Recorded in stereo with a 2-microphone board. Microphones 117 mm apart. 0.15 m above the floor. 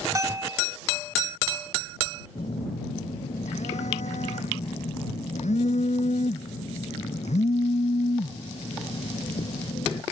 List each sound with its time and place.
0.1 s a bell: 30° right (ahead or behind)
2.4 s a phone buzzing: 80° left